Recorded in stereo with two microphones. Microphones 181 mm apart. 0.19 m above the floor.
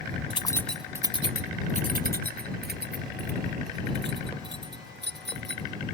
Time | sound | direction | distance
0.3 | keys jangling | 30° left (ahead or behind) | ?